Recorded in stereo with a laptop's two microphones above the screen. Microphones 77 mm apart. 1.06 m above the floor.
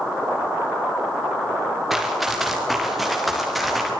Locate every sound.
1.9 s running footsteps: 5° right (ahead or behind), 5 m; by 3.9 s centre (ahead or behind), 6.5 m